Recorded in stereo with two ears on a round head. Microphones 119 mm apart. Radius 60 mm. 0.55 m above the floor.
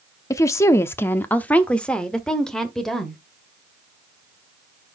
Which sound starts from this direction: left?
A woman speaking, at 0.3 s.